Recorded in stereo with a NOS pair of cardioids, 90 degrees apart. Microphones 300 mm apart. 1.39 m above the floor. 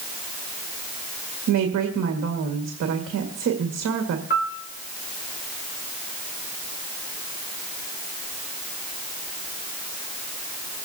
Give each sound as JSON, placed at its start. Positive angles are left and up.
{"t": 1.5, "sound": "a woman speaking", "azimuth_deg": -60, "distance_m": 1.9}
{"t": 4.3, "sound": "a piano", "azimuth_deg": 35, "distance_m": 1.8}